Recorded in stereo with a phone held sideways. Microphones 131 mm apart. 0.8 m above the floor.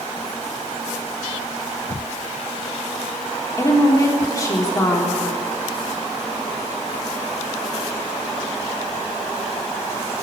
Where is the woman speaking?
25° left (ahead or behind), 1.5 m.